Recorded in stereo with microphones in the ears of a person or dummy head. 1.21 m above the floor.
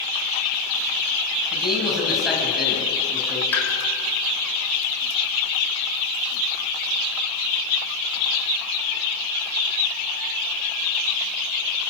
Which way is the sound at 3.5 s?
10° left (ahead or behind).